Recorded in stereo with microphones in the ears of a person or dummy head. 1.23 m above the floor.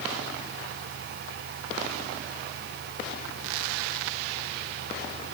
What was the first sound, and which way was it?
Only background noise.